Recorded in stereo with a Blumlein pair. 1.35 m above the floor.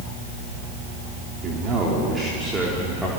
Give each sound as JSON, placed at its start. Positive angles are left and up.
{"t": 1.4, "sound": "a man speaking", "azimuth_deg": -30, "distance_m": 4.0}